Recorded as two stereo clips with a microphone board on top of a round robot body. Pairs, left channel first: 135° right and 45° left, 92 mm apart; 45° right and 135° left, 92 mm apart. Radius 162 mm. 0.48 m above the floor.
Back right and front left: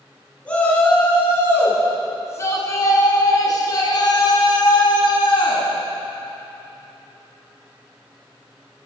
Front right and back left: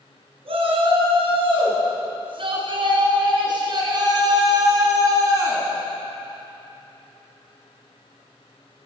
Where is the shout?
150° left, 5.5 m; by 5.7 s 170° right, 5.5 m.